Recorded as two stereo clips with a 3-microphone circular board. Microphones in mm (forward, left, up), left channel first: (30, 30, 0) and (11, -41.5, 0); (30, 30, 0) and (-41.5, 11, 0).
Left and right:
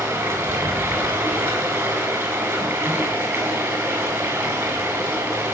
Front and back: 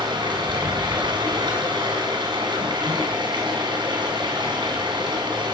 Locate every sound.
0.0 s running water: 160° right, 4 m